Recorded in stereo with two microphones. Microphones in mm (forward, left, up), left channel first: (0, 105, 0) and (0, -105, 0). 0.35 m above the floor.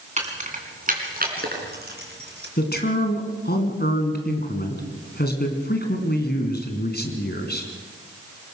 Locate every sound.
0.2 s keys jangling: 35° right (ahead or behind), 2.5 m; by 2.5 s 55° right (ahead or behind), 4.5 m
2.6 s a man speaking: 50° left (ahead or behind), 3 m